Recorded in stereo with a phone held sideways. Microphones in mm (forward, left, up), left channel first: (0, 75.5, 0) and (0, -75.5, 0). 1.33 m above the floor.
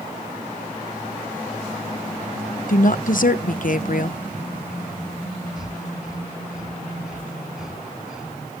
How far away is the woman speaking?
About 0.9 m.